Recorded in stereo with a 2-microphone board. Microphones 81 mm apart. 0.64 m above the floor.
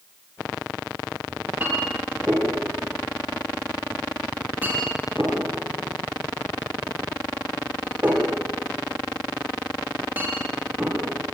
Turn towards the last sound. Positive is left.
turn(degrees=-25)  # may be behind; listen again after turning